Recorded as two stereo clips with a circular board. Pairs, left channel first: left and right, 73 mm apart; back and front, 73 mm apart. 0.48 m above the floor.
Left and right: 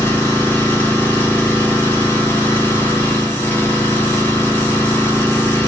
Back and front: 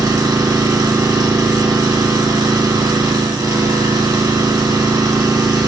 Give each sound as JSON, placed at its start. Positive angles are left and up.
{"t": 0.0, "sound": "an engine running", "azimuth_deg": 30, "distance_m": 1.7}